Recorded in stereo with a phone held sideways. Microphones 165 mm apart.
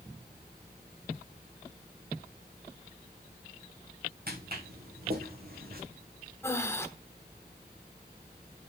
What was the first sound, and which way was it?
Footsteps, 70° right (ahead or behind).